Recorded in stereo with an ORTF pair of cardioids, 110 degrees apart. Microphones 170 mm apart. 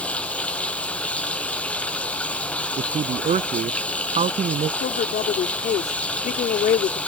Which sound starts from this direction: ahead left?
A woman speaking, at 4.8 s.